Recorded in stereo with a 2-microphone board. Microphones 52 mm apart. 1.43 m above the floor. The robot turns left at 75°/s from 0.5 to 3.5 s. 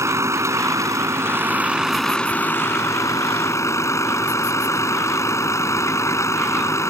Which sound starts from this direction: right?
A vehicle, at 0.0 s.